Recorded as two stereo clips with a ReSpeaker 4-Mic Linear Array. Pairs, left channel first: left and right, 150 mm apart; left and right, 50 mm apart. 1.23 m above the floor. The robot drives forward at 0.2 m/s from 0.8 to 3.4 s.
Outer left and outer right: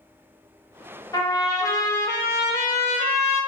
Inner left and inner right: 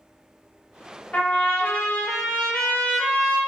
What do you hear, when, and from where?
1.1 s a trumpet: 25° left (ahead or behind), 0.6 m; by 3.4 s 15° left (ahead or behind), 1.0 m